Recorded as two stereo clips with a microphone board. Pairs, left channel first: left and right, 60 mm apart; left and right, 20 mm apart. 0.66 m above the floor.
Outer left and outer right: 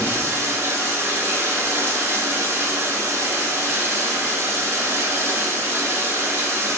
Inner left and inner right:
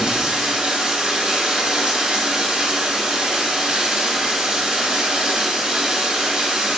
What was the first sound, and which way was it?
Running water, 45° right (ahead or behind).